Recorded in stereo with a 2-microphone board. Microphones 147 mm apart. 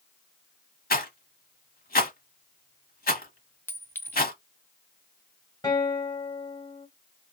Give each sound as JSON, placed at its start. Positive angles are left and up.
{"t": 0.9, "sound": "a rattle", "side_deg": 85, "distance_m": 0.9}
{"t": 3.7, "sound": "a clink", "side_deg": 15, "distance_m": 0.6}
{"t": 5.6, "sound": "a guitar", "side_deg": 25, "distance_m": 1.4}